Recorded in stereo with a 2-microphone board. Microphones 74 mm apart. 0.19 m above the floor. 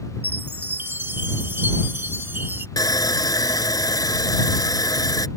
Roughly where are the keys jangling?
No keys jangling in this recording.